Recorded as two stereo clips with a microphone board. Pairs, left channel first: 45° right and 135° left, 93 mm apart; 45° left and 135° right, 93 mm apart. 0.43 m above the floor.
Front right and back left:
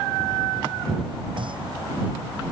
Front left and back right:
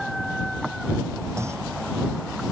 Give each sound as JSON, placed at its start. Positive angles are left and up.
{"t": 1.4, "sound": "a clunk", "azimuth_deg": 165}